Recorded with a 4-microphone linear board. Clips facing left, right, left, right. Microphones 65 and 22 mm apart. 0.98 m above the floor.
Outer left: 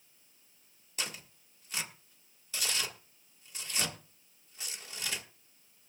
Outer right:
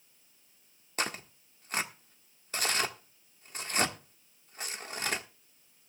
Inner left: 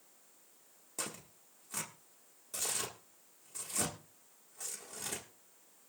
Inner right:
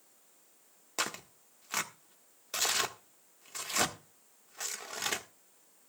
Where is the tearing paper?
45° right (ahead or behind), 1.4 m.